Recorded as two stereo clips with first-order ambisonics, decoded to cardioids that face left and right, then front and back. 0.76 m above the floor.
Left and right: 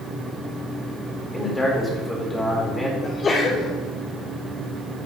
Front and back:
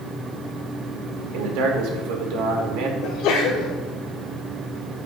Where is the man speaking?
170° left, 2.5 m.